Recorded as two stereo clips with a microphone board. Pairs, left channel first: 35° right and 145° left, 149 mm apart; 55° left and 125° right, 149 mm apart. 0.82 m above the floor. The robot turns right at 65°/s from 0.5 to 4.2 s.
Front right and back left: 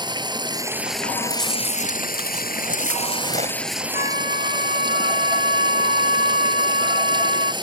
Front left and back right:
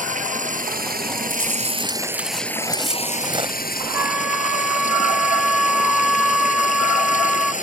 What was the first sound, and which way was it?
Running water, 155° right.